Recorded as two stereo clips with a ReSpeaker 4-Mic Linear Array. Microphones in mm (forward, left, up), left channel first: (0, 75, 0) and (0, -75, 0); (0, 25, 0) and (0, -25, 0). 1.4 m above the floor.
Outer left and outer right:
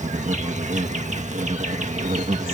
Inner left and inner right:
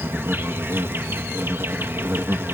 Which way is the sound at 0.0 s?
55° right (ahead or behind).